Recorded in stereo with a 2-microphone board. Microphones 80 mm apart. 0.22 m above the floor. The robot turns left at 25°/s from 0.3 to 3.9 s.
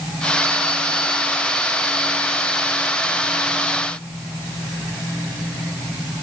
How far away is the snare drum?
No snare drum in this recording.